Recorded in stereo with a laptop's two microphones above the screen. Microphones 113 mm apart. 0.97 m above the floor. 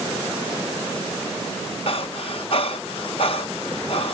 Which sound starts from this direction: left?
Breathing, at 1.9 s.